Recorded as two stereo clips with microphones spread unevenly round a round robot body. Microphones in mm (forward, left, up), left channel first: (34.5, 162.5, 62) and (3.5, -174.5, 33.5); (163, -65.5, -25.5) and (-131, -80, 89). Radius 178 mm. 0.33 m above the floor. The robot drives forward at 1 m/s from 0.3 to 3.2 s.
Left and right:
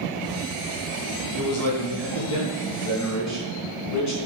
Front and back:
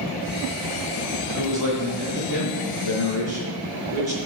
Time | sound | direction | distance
1.4 | a man speaking | 105° left | 3.5 m